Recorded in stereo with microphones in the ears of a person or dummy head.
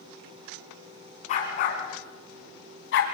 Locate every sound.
1.3 s a dog barking: 45° left (ahead or behind), 4 m; by 3.0 s 65° left (ahead or behind), 3 m